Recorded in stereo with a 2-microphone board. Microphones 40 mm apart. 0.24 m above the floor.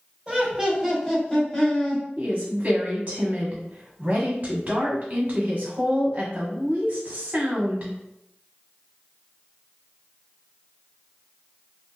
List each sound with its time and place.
0.3 s laughter: 25° right (ahead or behind), 1.0 m; by 2.0 s 30° left (ahead or behind), 1.1 m
2.2 s a woman speaking: 40° right (ahead or behind), 1.3 m